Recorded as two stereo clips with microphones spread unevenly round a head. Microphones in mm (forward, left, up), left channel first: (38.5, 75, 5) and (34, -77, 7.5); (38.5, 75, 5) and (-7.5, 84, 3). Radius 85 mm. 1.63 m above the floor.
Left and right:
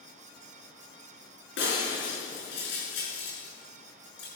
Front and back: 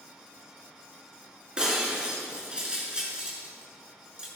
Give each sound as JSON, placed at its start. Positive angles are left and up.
{"t": 1.6, "sound": "breaking glass", "azimuth_deg": 100, "distance_m": 6.5}